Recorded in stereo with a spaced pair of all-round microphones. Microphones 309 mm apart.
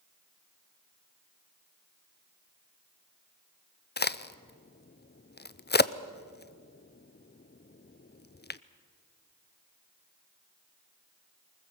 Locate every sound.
4.0 s a crack: 30° left (ahead or behind), 0.5 m